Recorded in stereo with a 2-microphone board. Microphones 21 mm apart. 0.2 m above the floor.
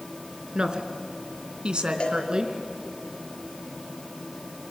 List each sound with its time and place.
0.6 s a woman speaking: 45° right (ahead or behind), 2.5 m; by 2.5 s 35° right (ahead or behind), 2.5 m
2.0 s a cowbell: 50° left (ahead or behind), 4.5 m